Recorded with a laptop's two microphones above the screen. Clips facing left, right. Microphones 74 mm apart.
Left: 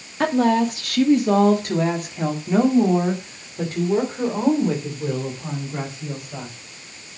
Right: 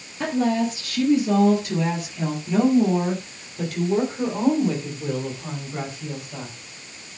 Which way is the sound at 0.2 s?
70° left (ahead or behind).